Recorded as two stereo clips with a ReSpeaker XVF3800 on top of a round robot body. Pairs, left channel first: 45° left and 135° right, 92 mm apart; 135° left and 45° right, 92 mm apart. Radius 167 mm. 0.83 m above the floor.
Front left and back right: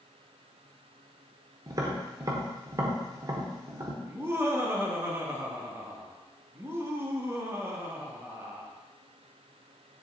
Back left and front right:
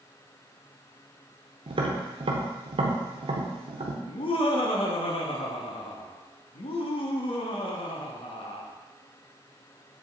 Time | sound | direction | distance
1.7 | tapping | 80° right | 0.8 m
4.0 | laughter | 155° left | 1.4 m